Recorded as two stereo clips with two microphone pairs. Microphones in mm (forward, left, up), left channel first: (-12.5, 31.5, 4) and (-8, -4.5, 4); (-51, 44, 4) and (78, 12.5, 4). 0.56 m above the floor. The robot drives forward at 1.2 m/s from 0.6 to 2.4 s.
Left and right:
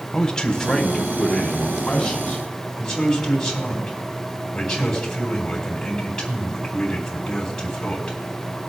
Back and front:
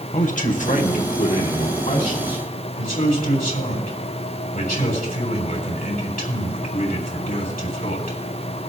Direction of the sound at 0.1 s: 170° left.